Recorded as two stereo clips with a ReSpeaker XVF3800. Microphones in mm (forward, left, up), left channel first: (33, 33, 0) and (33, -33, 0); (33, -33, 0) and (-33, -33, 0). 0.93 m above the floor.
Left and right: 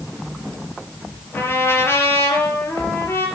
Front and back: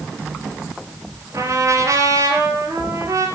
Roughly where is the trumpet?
Behind left.